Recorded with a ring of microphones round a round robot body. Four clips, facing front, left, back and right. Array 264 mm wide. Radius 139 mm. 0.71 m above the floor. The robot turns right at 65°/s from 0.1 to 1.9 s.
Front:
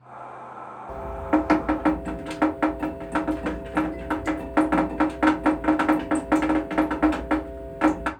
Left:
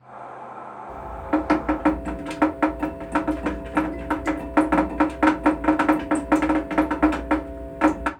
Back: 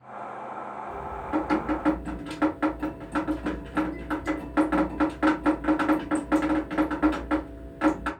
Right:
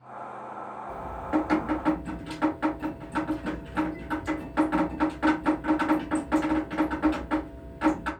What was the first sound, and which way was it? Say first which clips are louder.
Dripping: left 4 dB, front 7 dB; 5° left.